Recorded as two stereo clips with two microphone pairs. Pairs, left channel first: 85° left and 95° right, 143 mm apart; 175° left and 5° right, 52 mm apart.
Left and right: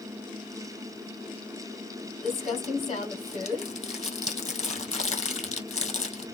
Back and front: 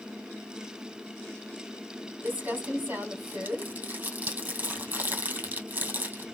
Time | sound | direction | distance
2.2 | crumpling | 45° left | 1.7 m